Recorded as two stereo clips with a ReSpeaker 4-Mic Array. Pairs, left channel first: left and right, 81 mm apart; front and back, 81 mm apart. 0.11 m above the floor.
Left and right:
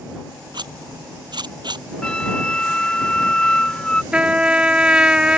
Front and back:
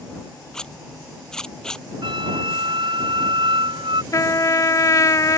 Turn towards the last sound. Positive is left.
turn(degrees=-20)